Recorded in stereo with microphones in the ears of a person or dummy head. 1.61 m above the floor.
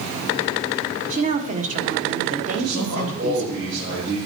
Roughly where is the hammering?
No hammering in this recording.